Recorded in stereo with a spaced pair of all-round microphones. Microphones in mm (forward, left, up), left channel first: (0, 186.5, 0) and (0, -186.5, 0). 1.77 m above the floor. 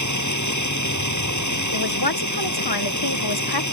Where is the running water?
50° left (ahead or behind).